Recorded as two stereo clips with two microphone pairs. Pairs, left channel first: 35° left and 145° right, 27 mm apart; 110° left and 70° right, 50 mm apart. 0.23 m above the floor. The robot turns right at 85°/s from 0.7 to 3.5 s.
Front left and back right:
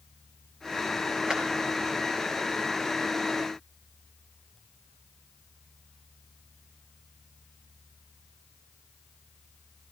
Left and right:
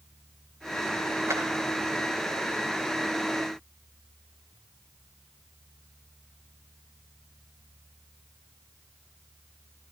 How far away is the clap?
About 4.5 m.